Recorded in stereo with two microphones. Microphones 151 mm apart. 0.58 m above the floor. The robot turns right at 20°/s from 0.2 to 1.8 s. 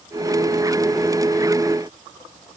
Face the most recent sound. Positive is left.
No sound to turn to.